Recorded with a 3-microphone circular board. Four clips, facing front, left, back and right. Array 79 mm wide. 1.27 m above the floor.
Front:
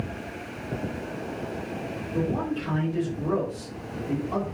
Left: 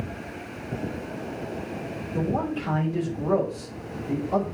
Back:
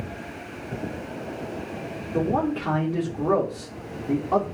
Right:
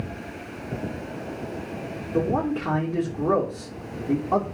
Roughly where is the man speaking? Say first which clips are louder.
Right 3 dB, back 4 dB; behind right.